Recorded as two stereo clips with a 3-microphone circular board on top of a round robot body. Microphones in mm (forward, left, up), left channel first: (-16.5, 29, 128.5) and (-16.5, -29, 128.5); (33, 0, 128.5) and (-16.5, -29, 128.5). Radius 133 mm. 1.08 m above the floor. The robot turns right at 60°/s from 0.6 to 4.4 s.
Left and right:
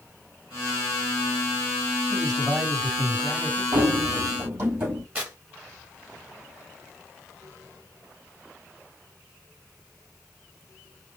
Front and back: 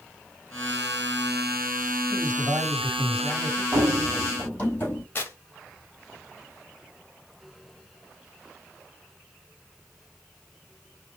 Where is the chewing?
I don't hear chewing.